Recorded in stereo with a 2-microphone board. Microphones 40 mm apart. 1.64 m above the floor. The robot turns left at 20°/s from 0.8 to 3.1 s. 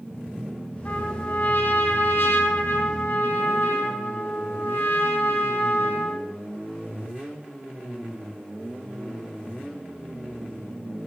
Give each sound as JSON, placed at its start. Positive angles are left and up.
{"t": 0.8, "sound": "a trumpet", "azimuth_deg": 125, "distance_m": 3.0}